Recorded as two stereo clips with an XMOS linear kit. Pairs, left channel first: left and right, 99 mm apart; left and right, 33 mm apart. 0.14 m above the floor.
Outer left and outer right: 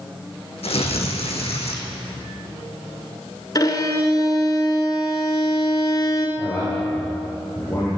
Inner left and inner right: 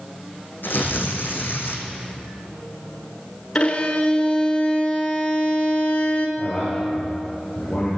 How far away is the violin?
About 1.2 m.